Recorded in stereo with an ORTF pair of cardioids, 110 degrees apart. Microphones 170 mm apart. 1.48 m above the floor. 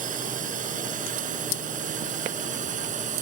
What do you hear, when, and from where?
0.0 s a drone: 50° right; by 3.2 s 45° right